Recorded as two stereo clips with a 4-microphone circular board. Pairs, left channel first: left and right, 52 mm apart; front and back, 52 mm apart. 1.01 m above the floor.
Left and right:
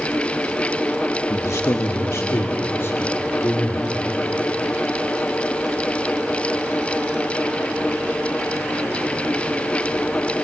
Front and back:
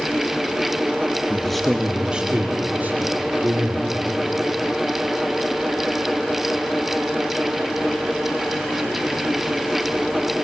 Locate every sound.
1.3 s a man speaking: 75° left, 1.2 m; by 3.9 s 135° left, 3 m